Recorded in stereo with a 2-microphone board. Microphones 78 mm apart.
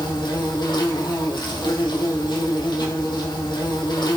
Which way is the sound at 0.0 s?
75° left (ahead or behind).